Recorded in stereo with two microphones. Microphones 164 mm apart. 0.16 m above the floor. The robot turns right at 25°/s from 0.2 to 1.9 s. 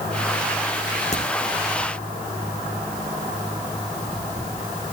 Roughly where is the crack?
Left.